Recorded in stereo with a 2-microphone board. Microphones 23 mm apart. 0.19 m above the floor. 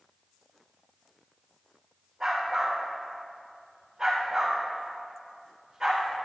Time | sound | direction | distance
2.2 | a dog barking | 15° right (ahead or behind) | 4.5 m